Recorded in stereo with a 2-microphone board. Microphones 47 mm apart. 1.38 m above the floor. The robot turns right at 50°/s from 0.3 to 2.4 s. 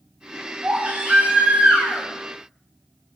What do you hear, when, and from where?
0.6 s a baby crying: 25° right (ahead or behind), 0.5 m; by 2.1 s 15° right (ahead or behind), 0.5 m